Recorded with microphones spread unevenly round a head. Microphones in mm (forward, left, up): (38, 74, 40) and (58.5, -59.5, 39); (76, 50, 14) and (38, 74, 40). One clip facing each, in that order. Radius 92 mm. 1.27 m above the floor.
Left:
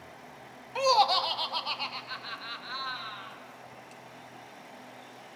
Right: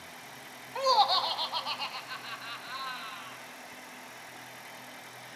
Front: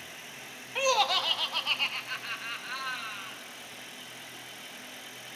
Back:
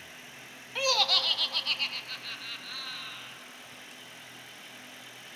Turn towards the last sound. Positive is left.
turn(degrees=0)